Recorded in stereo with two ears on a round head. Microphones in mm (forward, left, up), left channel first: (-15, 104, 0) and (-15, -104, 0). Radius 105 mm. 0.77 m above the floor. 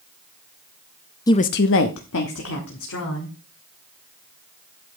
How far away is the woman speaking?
About 0.6 m.